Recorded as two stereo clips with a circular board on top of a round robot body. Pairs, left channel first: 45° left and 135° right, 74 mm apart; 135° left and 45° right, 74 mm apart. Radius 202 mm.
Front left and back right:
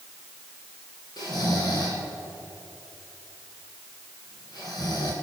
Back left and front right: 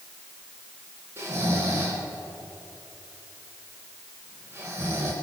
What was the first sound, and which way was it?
Snoring, 15° left.